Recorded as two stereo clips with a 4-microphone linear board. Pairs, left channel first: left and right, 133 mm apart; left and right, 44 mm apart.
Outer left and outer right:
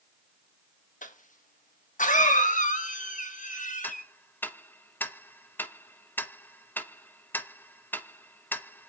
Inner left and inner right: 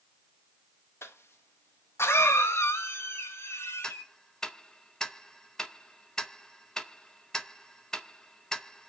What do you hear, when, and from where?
1.0 s a cough: 75° left (ahead or behind), 1.4 m
3.8 s ticking: 15° left (ahead or behind), 0.7 m